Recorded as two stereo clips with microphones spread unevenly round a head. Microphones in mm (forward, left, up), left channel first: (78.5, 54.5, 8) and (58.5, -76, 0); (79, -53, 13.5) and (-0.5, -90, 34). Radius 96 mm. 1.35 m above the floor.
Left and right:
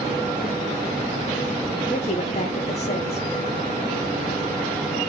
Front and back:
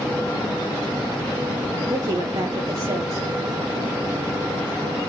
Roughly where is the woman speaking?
Behind left.